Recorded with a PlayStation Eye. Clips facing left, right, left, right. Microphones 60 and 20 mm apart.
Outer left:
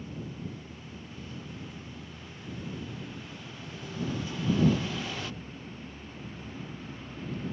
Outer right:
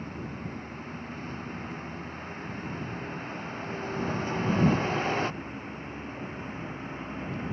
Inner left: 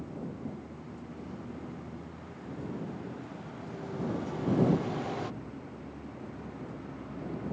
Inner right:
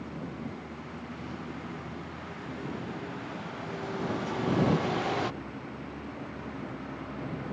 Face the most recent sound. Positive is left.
turn(degrees=-35)  # may be behind; listen again after turning